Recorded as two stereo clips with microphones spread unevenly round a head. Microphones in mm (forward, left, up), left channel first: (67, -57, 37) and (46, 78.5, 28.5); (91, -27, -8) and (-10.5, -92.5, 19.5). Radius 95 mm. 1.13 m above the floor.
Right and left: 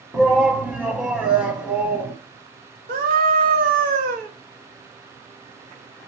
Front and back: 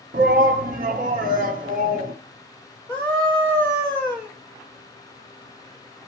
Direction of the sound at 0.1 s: Straight behind.